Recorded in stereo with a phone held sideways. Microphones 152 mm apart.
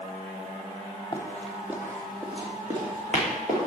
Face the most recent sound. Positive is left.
turn(degrees=-55)  # may be behind; listen again after turning